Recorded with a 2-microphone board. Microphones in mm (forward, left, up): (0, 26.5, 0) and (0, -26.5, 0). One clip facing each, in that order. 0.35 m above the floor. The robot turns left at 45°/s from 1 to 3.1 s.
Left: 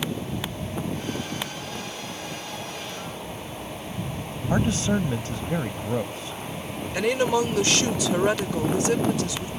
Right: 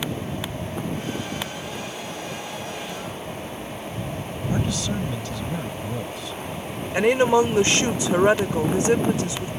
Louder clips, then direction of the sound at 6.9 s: Right 5 dB; 30° right (ahead or behind).